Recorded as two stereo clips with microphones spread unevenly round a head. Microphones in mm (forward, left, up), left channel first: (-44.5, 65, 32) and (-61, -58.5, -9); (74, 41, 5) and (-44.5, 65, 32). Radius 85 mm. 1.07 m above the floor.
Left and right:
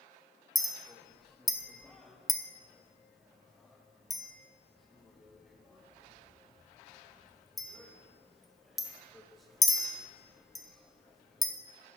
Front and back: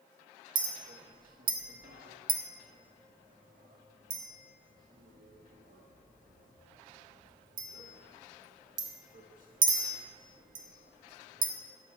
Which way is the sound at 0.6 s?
170° left.